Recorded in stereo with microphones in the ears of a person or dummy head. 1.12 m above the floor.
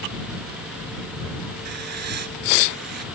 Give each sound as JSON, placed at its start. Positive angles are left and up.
{"t": 1.6, "sound": "writing", "side_deg": -55}